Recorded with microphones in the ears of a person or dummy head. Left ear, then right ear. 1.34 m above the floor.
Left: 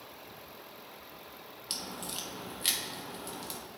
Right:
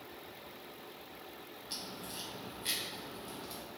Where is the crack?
60° left (ahead or behind), 1.4 m.